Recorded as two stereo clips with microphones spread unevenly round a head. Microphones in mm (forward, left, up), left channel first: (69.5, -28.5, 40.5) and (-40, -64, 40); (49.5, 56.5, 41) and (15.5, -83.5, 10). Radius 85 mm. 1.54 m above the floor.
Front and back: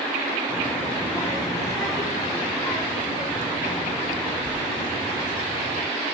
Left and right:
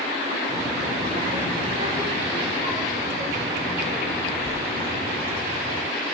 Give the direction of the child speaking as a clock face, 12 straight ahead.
2 o'clock.